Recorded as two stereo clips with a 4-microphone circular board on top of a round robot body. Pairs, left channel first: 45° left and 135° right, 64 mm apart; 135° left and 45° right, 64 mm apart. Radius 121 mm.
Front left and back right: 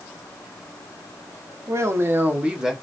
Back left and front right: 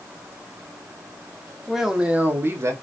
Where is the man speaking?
135° right, 1.0 m; by 2.7 s 55° right, 0.9 m.